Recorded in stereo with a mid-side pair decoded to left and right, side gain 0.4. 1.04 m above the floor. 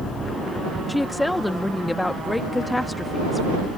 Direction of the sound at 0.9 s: 15° left.